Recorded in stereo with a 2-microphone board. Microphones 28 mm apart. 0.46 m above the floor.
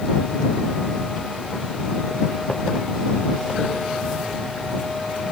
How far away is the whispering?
No whispering in this recording.